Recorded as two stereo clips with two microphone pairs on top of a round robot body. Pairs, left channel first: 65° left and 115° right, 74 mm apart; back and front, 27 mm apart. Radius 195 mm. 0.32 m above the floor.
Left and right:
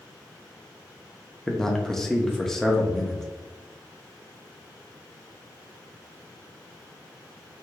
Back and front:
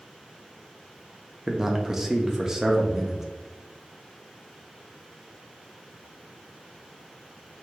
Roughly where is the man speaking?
Ahead right.